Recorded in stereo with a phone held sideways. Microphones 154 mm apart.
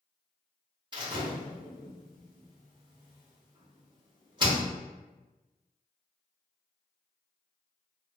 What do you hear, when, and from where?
0.9 s a door slam: 30° right (ahead or behind), 1.0 m